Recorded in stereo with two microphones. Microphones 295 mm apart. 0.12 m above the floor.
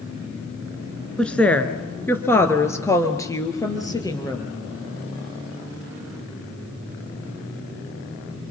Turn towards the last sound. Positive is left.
turn(degrees=15)  # may be behind; listen again after turning